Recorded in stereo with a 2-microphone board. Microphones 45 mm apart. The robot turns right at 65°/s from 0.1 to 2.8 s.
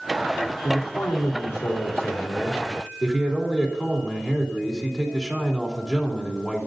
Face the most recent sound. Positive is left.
turn(degrees=180)